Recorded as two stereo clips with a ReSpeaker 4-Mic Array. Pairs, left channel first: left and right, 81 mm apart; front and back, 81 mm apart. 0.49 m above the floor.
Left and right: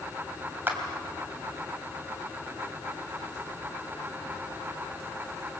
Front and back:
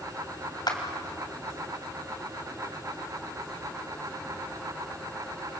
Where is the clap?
30° right, 3 m.